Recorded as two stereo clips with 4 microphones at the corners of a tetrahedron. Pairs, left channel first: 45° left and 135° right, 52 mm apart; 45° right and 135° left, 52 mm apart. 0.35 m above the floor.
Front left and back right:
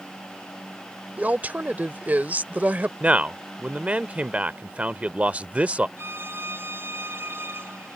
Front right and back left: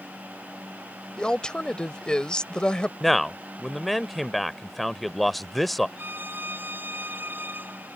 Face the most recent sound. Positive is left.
turn(degrees=-175)